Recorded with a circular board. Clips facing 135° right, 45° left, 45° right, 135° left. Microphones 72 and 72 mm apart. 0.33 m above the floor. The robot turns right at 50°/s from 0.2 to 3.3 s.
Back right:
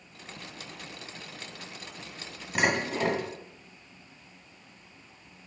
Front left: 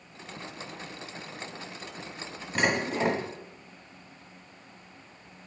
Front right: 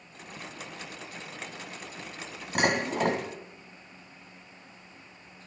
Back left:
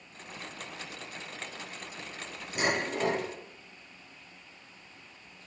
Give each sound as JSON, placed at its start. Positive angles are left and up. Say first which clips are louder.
{"t": 2.5, "sound": "dishes clattering", "louder": "even, front right 3 dB", "azimuth_deg": -50, "distance_m": 1.6}